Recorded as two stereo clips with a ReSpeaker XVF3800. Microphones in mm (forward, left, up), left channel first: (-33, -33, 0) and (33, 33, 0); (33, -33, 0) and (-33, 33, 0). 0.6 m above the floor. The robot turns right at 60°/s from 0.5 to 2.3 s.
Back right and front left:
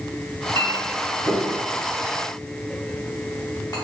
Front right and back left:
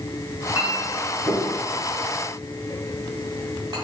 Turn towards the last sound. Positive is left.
turn(degrees=180)